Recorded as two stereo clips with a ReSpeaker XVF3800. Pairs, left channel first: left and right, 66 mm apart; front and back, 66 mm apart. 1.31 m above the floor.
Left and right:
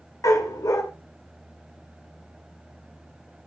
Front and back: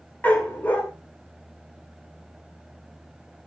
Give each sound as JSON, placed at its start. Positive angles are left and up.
{"t": 0.2, "sound": "a dog barking", "azimuth_deg": 65, "distance_m": 2.0}